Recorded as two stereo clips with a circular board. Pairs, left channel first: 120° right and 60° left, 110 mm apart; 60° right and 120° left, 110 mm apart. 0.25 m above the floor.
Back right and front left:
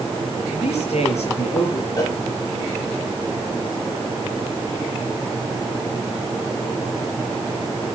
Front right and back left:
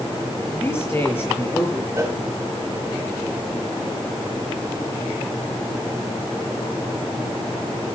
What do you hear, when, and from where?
0.5 s a man speaking: 130° right, 7.5 m
2.0 s a cowbell: 175° right, 5.5 m